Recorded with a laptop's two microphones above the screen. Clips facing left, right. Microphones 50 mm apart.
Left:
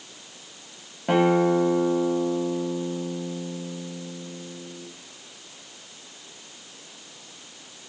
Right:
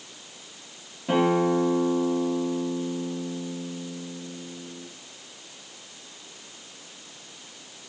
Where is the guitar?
45° left (ahead or behind), 0.9 m.